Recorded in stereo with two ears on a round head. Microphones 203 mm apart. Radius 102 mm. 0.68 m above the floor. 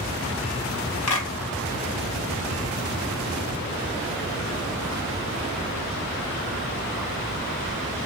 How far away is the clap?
About 4 m.